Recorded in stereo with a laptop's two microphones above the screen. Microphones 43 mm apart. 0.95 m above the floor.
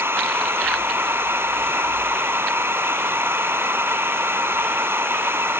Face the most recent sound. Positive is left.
turn(degrees=-65)  # may be behind; listen again after turning